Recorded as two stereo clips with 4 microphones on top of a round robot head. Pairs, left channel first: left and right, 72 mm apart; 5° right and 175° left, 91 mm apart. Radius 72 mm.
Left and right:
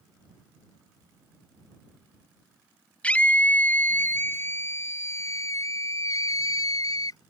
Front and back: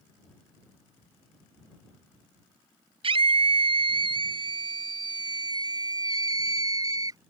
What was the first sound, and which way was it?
A scream, 165° left.